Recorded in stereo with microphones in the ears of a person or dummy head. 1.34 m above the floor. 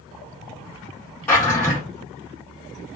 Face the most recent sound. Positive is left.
turn(degrees=15)  # may be behind; listen again after turning